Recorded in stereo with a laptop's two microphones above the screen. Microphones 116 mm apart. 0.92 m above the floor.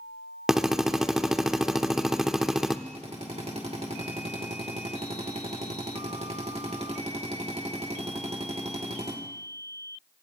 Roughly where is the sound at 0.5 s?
Centre.